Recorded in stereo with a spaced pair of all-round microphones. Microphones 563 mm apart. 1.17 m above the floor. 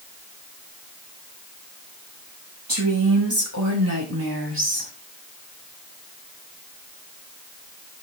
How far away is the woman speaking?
About 9.5 m.